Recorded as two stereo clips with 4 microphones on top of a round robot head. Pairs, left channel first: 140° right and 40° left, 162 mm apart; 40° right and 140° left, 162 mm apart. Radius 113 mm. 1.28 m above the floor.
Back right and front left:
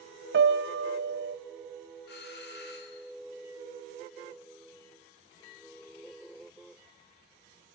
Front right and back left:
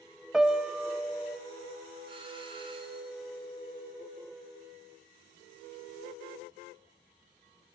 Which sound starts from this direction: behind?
A doorbell, at 2.1 s.